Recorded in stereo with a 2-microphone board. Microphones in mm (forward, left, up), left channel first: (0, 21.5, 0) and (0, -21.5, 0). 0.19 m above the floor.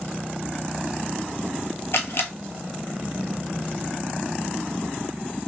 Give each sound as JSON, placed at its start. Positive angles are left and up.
{"t": 1.9, "sound": "a camera shutter", "side_deg": 75, "distance_m": 0.9}